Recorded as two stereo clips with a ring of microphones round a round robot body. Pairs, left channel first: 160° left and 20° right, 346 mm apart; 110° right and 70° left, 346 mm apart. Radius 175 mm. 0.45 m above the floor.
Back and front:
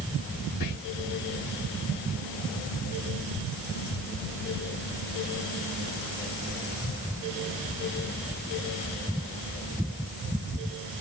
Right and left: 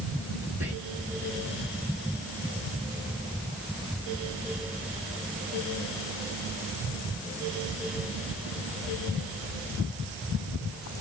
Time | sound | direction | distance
0.6 | whispering | 150° left | 2 m